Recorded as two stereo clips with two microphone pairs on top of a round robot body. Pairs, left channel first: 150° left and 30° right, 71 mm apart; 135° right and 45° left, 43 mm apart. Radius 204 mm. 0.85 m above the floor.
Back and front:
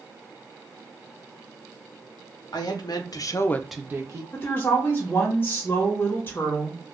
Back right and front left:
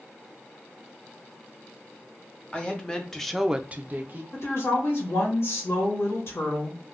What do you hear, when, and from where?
2.5 s a woman speaking: 155° left, 1.2 m; by 4.2 s 5° left, 0.8 m
4.3 s a woman speaking: 155° right, 1.6 m